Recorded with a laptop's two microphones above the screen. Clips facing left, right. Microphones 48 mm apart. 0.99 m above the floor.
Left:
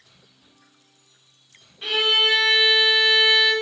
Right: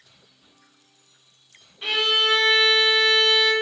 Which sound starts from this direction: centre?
A violin, at 1.8 s.